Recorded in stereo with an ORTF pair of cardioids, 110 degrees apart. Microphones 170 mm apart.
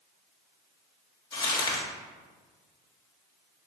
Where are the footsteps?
No footsteps in this recording.